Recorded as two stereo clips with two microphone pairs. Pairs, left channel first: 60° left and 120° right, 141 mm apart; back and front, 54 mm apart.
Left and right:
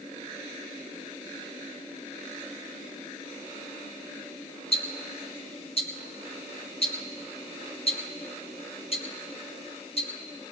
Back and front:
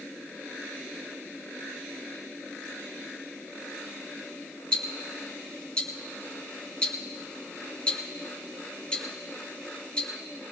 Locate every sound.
4.7 s ticking: 105° left, 1.7 m